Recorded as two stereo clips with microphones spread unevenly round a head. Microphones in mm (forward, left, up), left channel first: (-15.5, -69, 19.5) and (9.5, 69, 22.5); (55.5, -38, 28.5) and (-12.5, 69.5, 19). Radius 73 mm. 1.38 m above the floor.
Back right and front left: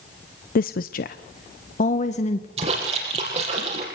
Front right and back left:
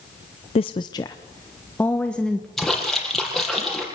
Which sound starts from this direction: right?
A woman speaking, at 0.6 s.